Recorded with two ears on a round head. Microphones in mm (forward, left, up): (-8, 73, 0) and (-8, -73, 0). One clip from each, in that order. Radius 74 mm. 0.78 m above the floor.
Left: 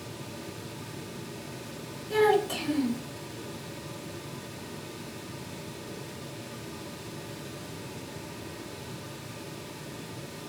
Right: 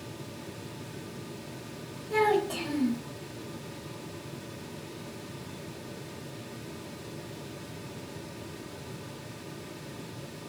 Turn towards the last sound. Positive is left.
turn(degrees=55)  # may be behind; listen again after turning